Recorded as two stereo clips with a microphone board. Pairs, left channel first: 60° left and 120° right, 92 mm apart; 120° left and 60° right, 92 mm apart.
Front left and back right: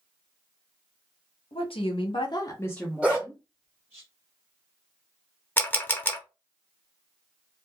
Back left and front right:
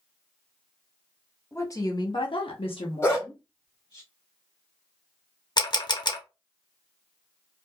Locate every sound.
1.5 s a woman speaking: 60° left, 0.9 m; by 4.0 s 170° left, 1.3 m
3.0 s a dog barking: 165° left, 1.5 m
5.6 s a camera shutter: 125° left, 0.6 m